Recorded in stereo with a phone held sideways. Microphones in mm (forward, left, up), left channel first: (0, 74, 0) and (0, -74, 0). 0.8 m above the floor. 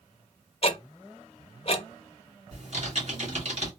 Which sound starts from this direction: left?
Ticking, at 0.6 s.